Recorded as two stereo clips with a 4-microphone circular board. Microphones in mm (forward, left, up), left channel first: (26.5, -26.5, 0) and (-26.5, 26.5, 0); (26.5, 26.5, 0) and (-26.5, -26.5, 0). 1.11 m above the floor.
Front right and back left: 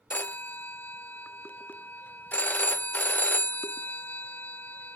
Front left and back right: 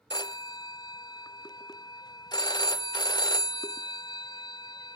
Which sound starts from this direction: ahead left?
A phone ringing, at 0.1 s.